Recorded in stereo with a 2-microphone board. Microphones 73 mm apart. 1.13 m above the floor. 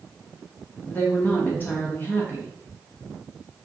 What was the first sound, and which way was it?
A woman speaking, 25° left (ahead or behind).